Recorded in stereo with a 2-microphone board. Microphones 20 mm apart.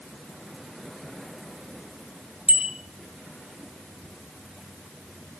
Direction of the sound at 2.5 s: 60° right (ahead or behind).